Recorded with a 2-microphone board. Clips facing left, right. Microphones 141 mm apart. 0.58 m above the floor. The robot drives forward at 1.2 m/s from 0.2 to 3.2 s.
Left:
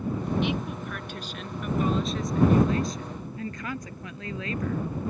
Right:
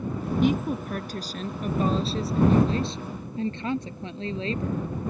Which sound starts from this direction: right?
A woman speaking, at 0.4 s.